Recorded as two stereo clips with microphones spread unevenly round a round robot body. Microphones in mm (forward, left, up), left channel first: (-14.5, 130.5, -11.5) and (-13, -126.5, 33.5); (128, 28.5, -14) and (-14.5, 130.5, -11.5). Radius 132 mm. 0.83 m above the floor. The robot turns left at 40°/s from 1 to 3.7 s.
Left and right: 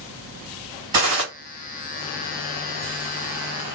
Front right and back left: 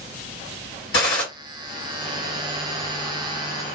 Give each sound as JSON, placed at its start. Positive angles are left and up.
{"t": 0.9, "sound": "a gunshot", "azimuth_deg": -65, "distance_m": 1.8}